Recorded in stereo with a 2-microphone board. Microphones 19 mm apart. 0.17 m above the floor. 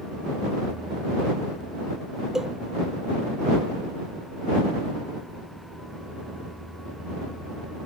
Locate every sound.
2.4 s a cowbell: 25° right (ahead or behind)